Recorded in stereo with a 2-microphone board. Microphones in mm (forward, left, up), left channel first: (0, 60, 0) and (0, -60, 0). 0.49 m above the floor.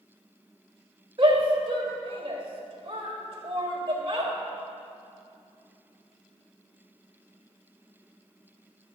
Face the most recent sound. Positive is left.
turn(degrees=-45)  # may be behind; listen again after turning